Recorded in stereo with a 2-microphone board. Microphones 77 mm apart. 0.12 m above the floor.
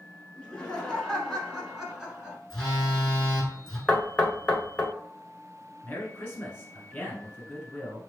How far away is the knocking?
About 0.9 m.